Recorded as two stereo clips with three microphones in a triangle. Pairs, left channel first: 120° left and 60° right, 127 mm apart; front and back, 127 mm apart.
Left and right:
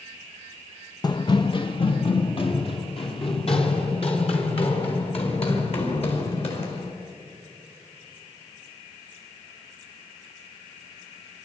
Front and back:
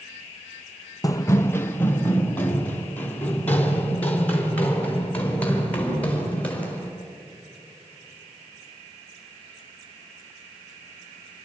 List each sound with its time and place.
1.0 s running footsteps: 65° left, 0.5 m; by 6.9 s 80° left, 7.5 m